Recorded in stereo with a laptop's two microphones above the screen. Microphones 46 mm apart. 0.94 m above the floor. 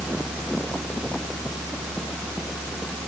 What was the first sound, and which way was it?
Only background noise.